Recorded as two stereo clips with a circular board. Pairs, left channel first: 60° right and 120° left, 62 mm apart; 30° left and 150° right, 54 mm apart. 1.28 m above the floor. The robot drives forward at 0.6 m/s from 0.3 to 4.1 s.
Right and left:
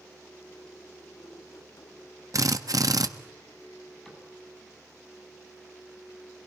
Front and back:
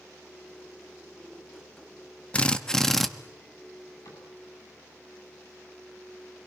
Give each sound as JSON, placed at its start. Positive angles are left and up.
{"t": 2.3, "sound": "a drill", "azimuth_deg": 95, "distance_m": 1.2}
{"t": 4.0, "sound": "a cupboard door", "azimuth_deg": 25, "distance_m": 9.5}